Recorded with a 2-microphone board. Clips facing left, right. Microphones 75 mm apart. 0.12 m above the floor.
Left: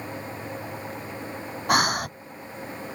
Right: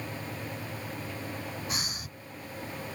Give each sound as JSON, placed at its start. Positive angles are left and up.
{"t": 1.7, "sound": "breathing", "side_deg": 70}